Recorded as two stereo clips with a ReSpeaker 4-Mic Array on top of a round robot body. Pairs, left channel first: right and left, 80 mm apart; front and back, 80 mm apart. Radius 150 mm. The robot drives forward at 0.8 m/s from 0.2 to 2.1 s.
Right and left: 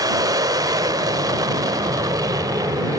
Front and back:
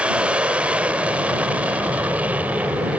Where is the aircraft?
110° left.